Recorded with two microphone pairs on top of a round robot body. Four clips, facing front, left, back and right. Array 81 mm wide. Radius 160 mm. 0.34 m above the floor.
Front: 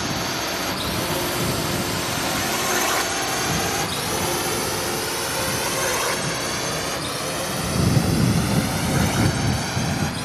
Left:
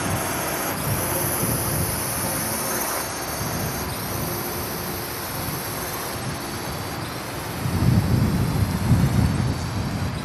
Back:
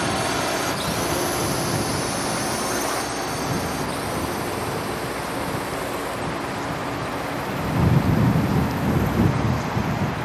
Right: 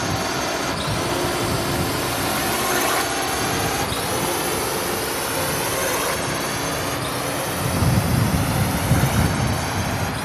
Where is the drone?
160° right; by 10.3 s 35° right.